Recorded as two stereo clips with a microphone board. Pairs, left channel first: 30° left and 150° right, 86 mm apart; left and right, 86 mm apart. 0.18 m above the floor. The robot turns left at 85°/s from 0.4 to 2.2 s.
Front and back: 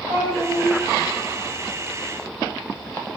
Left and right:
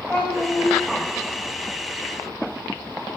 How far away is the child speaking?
About 9 m.